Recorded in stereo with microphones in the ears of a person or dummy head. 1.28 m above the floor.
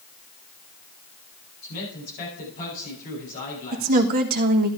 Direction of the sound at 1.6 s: 40° left (ahead or behind).